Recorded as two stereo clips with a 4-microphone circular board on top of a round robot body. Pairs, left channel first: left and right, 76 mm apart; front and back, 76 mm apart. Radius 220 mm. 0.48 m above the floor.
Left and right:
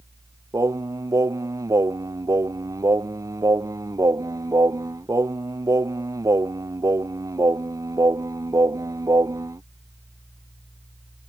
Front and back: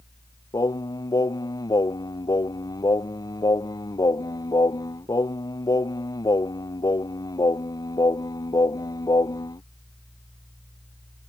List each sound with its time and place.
0.5 s singing: 40° right